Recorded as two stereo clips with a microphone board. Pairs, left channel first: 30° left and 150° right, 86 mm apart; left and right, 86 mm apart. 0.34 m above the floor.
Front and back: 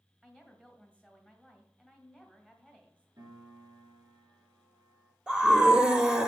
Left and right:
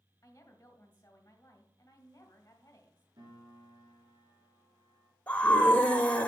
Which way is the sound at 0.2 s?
140° left.